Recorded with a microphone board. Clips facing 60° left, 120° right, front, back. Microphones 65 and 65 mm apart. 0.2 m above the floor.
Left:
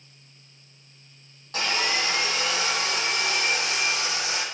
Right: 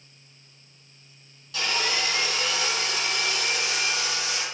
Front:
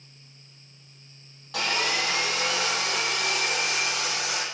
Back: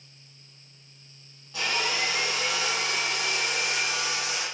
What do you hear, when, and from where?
1.5 s sawing: 15° left, 8 m